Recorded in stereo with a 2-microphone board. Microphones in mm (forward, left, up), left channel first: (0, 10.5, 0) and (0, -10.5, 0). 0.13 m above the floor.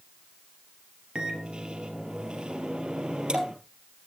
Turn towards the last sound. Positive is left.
turn(degrees=-45)  # may be behind; listen again after turning